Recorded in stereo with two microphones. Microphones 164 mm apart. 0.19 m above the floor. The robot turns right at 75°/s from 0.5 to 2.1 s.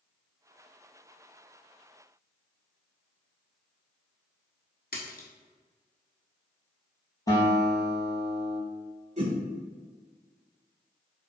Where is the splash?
75° left (ahead or behind), 0.9 m.